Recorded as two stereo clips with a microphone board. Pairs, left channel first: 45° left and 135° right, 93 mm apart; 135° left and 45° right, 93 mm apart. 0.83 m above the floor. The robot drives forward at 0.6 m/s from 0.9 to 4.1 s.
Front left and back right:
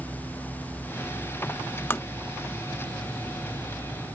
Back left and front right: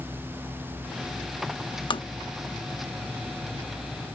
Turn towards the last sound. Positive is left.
turn(degrees=155)